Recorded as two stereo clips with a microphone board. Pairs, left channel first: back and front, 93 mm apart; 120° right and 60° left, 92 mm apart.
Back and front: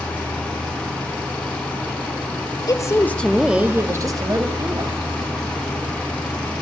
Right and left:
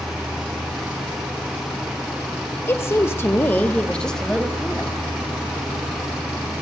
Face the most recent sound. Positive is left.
turn(degrees=-30)